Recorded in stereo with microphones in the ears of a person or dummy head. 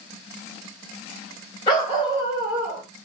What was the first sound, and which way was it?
A dog barking, 25° left (ahead or behind).